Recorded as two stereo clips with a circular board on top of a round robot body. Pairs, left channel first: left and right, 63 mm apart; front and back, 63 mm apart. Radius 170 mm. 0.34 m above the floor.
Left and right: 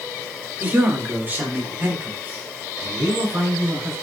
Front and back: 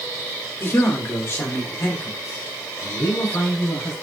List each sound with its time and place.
0.6 s a man speaking: 35° right, 1.9 m